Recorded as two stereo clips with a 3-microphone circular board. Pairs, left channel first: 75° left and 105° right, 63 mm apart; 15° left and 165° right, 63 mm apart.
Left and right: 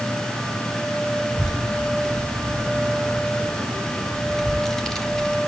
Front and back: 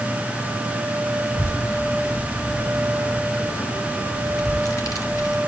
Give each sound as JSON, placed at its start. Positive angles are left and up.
{"t": 1.3, "sound": "a child speaking", "azimuth_deg": -20, "distance_m": 3.5}